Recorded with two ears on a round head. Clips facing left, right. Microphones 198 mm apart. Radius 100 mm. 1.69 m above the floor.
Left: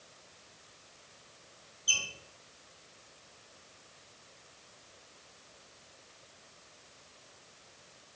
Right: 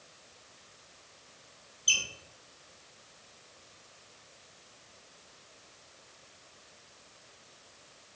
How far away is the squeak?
About 0.9 m.